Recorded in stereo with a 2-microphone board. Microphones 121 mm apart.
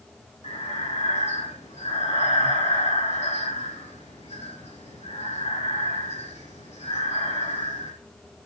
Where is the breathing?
65° left (ahead or behind), 5 m.